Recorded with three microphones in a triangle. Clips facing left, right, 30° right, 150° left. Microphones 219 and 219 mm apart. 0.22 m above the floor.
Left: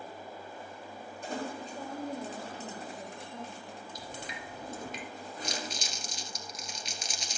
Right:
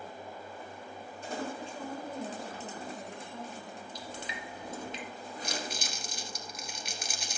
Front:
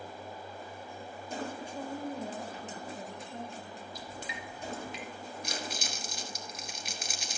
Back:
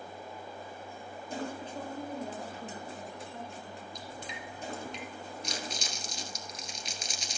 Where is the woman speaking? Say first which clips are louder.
Even, back 1 dB; 55° left, 3 m; by 3.9 s 5° left, 5 m.